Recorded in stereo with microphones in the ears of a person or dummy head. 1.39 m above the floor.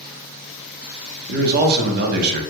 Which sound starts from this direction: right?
A man speaking, at 1.3 s.